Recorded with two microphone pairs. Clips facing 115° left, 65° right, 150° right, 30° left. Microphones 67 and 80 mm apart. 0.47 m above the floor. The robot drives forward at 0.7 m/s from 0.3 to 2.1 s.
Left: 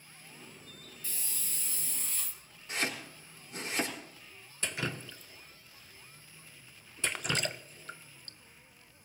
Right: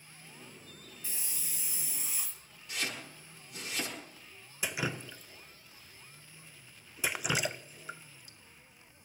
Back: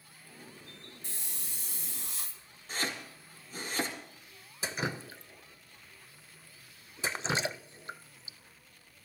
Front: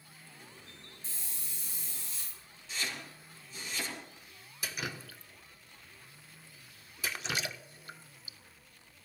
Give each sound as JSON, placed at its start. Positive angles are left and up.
{"t": 1.0, "sound": "a hiss", "azimuth_deg": -130, "distance_m": 2.0}
{"t": 2.7, "sound": "chopping", "azimuth_deg": 170, "distance_m": 5.5}
{"t": 4.6, "sound": "dripping", "azimuth_deg": -130, "distance_m": 0.6}